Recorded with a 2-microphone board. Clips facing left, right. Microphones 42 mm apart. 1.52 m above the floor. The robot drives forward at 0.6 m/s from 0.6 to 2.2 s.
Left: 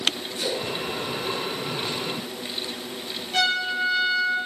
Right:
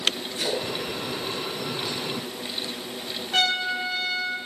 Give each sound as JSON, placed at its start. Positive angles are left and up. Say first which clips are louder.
{"t": 0.4, "sound": "a splash", "louder": "even", "side_deg": -70, "distance_m": 6.5}
{"t": 3.3, "sound": "a trumpet", "louder": "left 1 dB", "side_deg": -80, "distance_m": 8.0}